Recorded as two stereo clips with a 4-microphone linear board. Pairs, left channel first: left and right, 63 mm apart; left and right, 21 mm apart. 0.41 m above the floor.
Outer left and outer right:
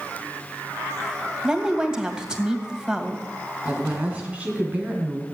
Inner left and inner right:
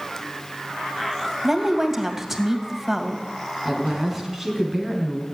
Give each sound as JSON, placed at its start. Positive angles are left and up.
{"t": 1.4, "sound": "a woman speaking", "side_deg": -10, "distance_m": 2.0}
{"t": 3.6, "sound": "a woman speaking", "side_deg": -20, "distance_m": 4.0}